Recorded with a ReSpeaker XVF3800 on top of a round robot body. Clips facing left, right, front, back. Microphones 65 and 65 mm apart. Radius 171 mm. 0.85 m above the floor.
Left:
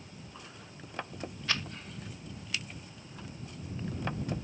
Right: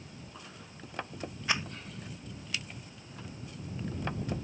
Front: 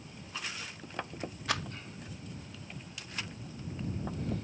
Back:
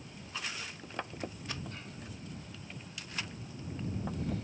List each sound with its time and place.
1.5 s a rattle: 20° right